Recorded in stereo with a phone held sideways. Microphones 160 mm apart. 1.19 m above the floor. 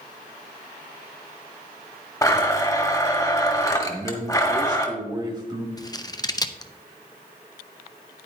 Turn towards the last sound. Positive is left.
turn(degrees=25)  # may be behind; listen again after turning